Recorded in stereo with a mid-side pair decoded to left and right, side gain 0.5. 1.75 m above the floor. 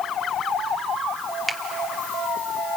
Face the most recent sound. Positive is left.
turn(degrees=-5)